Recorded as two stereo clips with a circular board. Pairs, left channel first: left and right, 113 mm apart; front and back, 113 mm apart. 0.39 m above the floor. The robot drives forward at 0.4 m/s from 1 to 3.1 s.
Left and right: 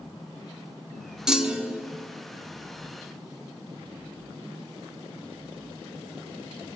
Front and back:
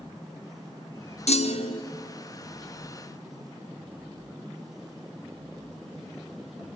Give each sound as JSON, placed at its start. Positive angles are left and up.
{"t": 1.3, "sound": "a clunk", "azimuth_deg": -5, "distance_m": 0.8}